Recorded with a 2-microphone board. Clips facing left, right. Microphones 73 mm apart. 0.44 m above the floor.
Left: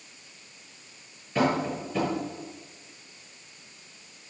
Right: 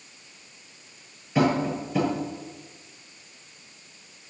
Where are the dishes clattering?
No dishes clattering in this recording.